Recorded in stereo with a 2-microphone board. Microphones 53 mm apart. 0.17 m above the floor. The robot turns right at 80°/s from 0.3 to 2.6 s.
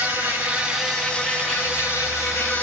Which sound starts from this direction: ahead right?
An insect, at 0.0 s.